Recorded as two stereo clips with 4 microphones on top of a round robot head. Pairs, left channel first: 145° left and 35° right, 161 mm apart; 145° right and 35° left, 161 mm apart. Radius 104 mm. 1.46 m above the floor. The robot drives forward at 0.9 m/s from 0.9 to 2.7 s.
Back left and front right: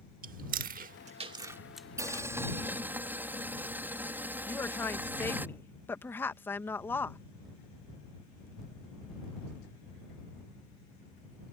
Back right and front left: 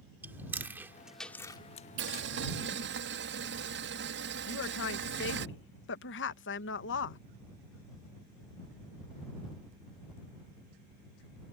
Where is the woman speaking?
135° right.